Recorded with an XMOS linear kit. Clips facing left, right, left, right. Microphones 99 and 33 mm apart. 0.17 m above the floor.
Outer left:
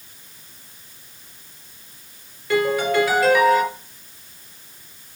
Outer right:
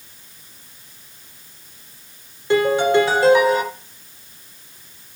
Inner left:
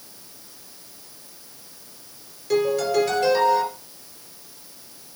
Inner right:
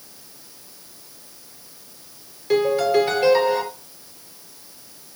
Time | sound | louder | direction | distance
2.5 | a piano | outer right 4 dB, inner right 3 dB | 25° right (ahead or behind) | 3.5 m